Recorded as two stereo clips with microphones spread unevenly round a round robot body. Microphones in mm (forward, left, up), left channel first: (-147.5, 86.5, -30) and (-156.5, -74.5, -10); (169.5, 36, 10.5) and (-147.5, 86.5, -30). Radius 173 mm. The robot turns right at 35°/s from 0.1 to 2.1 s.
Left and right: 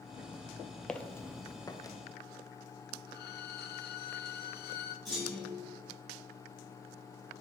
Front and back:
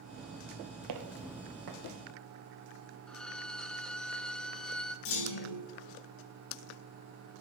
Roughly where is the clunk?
Ahead.